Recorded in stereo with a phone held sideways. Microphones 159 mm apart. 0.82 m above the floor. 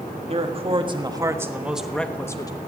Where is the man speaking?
40° right (ahead or behind), 1.6 m; by 2.5 s 25° left (ahead or behind), 1.1 m.